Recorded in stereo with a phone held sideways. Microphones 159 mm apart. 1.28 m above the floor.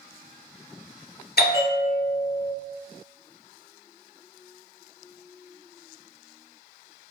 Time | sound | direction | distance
1.4 | a bell | 80° left | 0.5 m